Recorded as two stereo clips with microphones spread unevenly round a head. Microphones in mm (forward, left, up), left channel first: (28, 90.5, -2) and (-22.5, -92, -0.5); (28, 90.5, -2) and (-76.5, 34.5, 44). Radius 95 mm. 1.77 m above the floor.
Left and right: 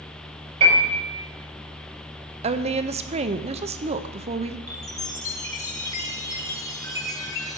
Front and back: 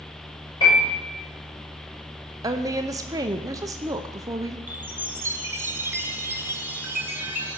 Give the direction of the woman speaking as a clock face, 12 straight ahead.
5 o'clock.